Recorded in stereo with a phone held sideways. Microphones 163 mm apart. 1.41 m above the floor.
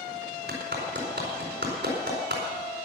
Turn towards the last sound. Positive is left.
turn(degrees=-80)